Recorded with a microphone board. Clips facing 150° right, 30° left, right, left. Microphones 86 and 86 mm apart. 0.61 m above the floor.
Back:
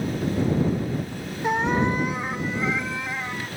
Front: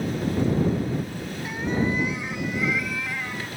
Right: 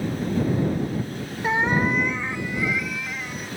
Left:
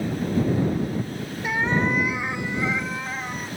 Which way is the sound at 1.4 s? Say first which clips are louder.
Back 4 dB, right 2 dB; 145° right.